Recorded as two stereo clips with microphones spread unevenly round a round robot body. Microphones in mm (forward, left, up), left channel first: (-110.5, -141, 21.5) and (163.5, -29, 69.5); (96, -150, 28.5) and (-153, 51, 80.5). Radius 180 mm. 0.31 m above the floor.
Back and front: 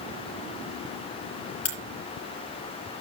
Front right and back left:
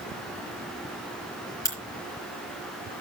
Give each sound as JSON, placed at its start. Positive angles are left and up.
{"t": 1.6, "sound": "a crack", "azimuth_deg": -120, "distance_m": 5.5}